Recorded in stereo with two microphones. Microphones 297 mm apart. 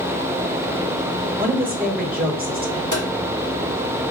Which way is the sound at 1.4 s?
30° right (ahead or behind).